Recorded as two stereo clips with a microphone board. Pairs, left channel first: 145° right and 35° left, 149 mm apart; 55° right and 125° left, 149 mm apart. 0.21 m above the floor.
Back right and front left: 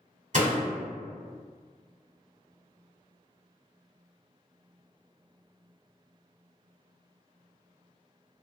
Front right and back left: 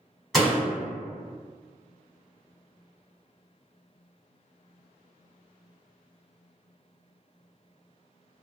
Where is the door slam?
35° left, 1.4 m.